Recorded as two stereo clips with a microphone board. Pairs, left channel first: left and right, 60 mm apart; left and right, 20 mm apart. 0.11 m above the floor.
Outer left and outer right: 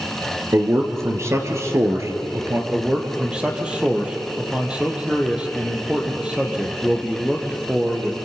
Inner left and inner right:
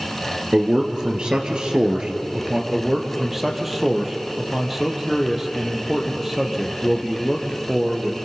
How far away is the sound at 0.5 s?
About 2.5 m.